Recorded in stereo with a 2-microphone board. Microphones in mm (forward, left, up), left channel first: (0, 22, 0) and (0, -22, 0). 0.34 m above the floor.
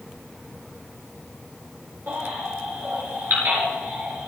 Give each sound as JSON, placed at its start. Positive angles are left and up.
{"t": 2.1, "sound": "a baby crying", "side_deg": -50, "distance_m": 4.5}